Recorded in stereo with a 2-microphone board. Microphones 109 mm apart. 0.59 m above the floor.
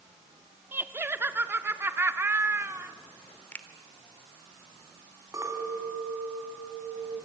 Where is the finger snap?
15° left (ahead or behind), 1.5 m.